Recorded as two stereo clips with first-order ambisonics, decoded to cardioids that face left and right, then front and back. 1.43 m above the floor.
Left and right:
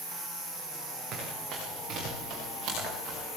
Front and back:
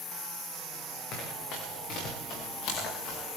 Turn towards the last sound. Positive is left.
turn(degrees=-40)